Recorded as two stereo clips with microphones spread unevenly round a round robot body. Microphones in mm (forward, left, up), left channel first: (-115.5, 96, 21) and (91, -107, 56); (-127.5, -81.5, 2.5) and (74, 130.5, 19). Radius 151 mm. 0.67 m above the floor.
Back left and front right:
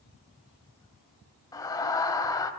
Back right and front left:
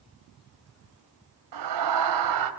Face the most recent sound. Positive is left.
turn(degrees=60)